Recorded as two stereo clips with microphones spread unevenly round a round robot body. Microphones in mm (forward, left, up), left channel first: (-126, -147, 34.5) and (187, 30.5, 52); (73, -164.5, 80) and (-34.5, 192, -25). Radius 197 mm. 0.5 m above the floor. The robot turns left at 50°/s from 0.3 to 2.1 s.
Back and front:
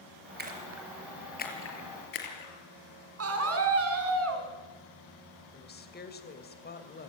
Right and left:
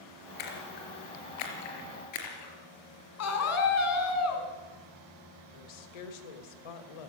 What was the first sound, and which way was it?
A splash, 35° right.